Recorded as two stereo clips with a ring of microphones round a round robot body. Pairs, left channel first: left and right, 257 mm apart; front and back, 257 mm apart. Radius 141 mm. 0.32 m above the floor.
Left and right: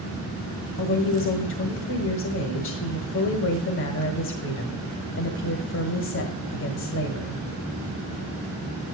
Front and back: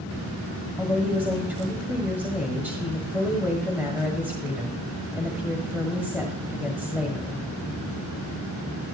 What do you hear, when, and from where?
0.8 s a woman speaking: 100° left, 1.5 m